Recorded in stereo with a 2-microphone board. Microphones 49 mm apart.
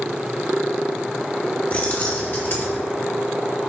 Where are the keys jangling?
30° left (ahead or behind), 2.5 m; by 2.8 s 50° left (ahead or behind), 2.5 m.